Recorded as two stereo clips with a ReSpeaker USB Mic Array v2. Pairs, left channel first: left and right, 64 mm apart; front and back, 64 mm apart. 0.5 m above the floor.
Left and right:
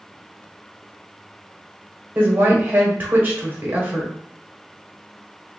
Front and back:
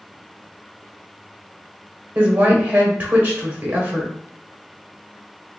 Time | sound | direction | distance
2.1 | a woman speaking | 135° right | 1.1 m